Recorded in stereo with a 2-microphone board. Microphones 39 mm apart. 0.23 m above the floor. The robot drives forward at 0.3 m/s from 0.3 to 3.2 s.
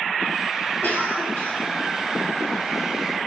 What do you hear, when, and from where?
0.8 s a cough: 40° left (ahead or behind), 6 m